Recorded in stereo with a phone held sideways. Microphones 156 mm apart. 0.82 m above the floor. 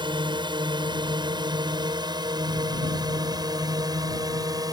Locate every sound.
0.0 s a drone: 30° right (ahead or behind); by 4.7 s 25° right (ahead or behind)